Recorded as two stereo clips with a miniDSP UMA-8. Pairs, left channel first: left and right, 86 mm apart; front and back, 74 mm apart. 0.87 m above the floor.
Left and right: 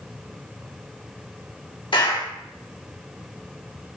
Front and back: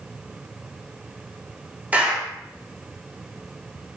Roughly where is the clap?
Left.